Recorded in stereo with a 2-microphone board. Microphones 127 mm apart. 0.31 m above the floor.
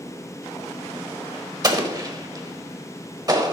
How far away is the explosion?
About 1.3 m.